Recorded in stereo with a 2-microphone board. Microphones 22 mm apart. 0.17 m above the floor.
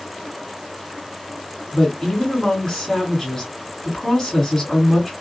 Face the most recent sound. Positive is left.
turn(degrees=20)  # may be behind; listen again after turning